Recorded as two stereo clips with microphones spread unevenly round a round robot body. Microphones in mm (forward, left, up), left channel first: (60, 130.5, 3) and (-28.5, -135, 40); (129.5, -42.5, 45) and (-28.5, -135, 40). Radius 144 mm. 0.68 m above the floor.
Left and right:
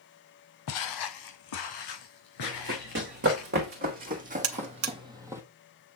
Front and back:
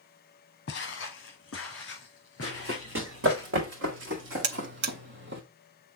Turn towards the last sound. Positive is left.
turn(degrees=-150)